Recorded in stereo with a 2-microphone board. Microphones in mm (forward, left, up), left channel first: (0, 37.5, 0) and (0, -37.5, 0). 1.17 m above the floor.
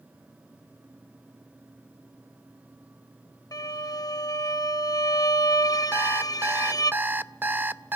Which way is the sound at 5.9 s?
25° right (ahead or behind).